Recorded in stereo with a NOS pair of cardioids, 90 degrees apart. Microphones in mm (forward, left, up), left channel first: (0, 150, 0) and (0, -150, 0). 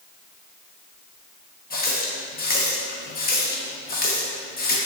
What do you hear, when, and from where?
1.7 s a running tap: 30° left, 0.9 m